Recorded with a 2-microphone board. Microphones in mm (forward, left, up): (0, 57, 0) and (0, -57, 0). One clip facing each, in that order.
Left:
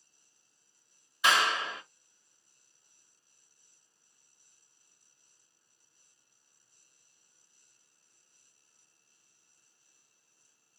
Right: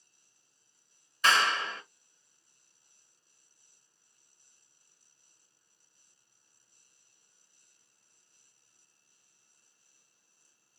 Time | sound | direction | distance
1.2 | a clap | 10° left (ahead or behind) | 1.1 m